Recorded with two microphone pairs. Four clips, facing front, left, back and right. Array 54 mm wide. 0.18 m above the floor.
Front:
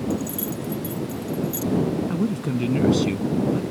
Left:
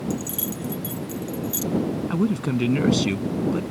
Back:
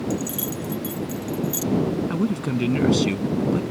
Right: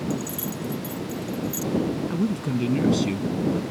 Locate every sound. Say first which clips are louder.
0.1 s keys jangling: even, even; 135° left; by 1.7 s 120° left
2.1 s a man speaking: left 2 dB, back 1 dB; 120° left